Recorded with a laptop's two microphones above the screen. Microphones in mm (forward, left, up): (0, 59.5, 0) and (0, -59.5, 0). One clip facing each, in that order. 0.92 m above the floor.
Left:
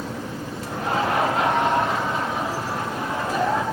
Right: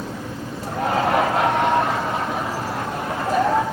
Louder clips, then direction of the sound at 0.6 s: Right 3 dB; 80° right.